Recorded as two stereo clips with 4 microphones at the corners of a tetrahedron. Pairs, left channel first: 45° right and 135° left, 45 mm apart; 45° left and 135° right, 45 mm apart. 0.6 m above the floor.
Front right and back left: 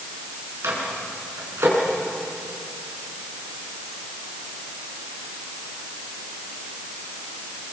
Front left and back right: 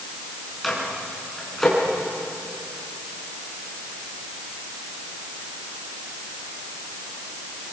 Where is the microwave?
130° left, 5.5 m.